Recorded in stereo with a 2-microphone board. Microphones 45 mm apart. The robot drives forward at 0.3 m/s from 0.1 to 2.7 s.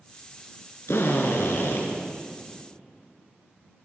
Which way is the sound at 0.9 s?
75° left (ahead or behind).